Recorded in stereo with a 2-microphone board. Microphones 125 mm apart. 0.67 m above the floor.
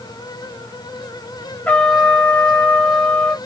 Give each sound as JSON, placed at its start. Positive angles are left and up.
{"t": 1.7, "sound": "a trumpet", "side_deg": 10, "distance_m": 0.5}